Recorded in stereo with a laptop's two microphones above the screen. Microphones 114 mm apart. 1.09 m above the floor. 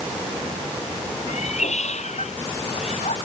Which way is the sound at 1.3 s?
80° left.